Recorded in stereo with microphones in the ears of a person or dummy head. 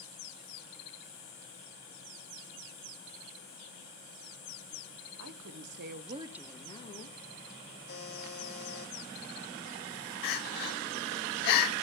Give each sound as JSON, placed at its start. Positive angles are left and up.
{"t": 5.2, "sound": "a woman speaking", "side_deg": -80, "distance_m": 1.3}
{"t": 7.9, "sound": "a buzzer", "side_deg": 75, "distance_m": 6.0}
{"t": 10.2, "sound": "crying", "side_deg": 60, "distance_m": 1.7}